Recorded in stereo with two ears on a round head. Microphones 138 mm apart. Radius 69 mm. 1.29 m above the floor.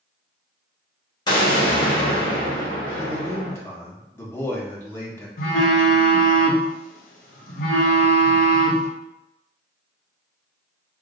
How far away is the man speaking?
About 1.3 m.